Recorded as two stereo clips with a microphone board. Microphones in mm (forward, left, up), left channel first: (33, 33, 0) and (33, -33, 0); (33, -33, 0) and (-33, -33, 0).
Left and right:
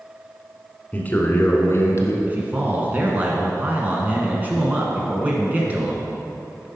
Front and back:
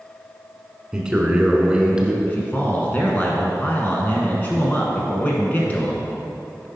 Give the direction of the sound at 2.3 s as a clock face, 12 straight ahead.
2 o'clock.